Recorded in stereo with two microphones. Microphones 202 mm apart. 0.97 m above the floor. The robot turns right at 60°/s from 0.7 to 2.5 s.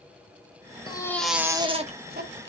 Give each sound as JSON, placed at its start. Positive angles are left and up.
{"t": 0.9, "sound": "a baby crying", "azimuth_deg": 155, "distance_m": 1.1}